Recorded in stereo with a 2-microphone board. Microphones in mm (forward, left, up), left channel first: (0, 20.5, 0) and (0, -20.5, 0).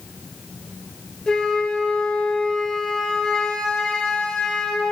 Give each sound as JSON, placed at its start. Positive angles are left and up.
{"t": 1.3, "sound": "a flute", "side_deg": 20, "distance_m": 1.3}